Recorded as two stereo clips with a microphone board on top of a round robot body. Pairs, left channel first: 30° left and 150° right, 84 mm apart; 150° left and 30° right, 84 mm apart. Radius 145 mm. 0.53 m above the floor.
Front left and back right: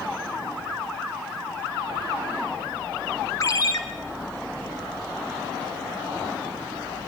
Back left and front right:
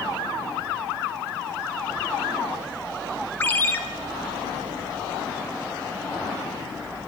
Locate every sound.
3.4 s a ringtone: 80° left, 1.4 m